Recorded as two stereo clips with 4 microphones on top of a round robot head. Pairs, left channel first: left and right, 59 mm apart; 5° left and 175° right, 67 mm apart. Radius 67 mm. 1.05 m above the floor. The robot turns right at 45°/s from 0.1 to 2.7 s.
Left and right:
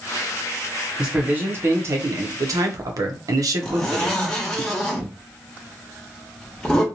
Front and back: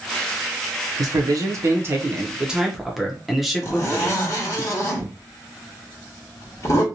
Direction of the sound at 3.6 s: 20° left.